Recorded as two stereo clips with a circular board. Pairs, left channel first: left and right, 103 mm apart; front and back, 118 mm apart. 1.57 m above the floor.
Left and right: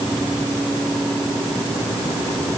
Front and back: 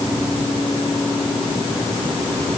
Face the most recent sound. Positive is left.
No sound to turn to.